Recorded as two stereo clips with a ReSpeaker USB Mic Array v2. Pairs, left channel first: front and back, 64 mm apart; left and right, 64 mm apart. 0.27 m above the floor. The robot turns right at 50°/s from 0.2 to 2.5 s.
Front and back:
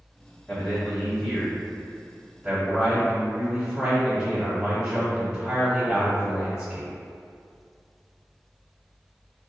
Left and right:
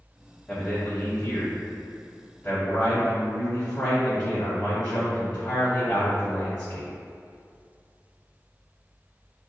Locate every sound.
0.5 s a man speaking: 40° left, 1.1 m; by 6.9 s 140° left, 1.1 m